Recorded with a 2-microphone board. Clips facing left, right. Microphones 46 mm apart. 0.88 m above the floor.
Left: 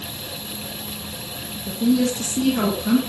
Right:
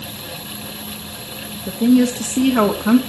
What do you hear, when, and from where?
1.7 s a woman speaking: 45° right (ahead or behind), 1.8 m